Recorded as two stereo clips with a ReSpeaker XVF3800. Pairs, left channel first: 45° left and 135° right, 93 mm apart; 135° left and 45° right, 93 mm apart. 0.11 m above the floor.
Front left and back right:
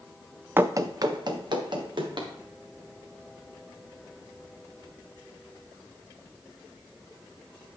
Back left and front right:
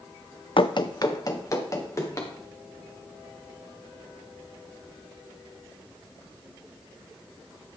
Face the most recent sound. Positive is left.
turn(degrees=-170)